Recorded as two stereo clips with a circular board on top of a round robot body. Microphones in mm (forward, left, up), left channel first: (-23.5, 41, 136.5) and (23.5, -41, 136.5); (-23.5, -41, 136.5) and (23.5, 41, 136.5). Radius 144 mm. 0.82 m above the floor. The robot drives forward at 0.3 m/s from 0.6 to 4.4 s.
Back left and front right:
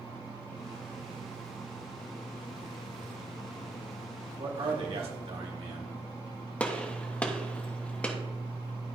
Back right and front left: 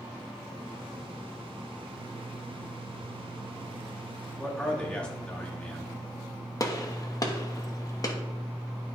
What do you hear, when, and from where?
4.4 s a man speaking: 40° right, 2 m
6.6 s a gunshot: 165° right, 1.1 m